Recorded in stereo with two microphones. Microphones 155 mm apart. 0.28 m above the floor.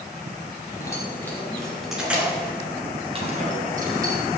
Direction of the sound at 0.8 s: 20° left (ahead or behind).